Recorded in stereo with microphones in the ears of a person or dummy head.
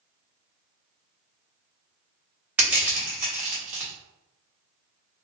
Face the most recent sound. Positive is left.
turn(degrees=-10)  # may be behind; listen again after turning